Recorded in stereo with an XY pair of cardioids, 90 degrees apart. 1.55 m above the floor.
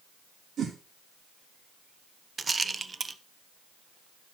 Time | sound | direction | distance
0.6 | a whoosh | 70° right | 2.0 m
2.4 | a rattle | 35° right | 0.6 m